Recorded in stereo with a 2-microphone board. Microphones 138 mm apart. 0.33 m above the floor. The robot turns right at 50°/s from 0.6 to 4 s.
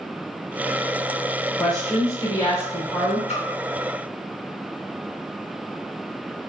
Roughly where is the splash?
Left.